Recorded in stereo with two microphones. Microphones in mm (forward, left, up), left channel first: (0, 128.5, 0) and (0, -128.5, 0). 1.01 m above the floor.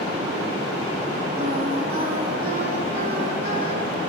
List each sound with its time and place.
1.4 s singing: 40° right (ahead or behind), 8 m